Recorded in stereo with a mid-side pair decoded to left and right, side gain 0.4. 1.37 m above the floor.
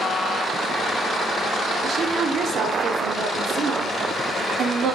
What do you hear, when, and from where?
1.8 s a woman speaking: 65° right, 0.6 m